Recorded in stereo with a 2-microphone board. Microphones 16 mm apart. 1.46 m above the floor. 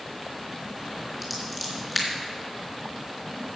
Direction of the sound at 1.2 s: 10° right (ahead or behind).